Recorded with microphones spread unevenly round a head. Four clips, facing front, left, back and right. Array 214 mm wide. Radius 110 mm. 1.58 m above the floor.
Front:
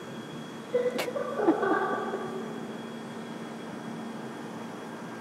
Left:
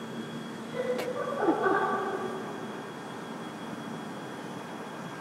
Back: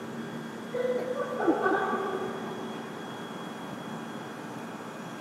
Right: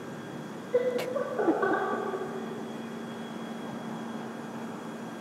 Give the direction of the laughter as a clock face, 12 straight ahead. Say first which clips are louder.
Right 4 dB, front 1 dB; 2 o'clock.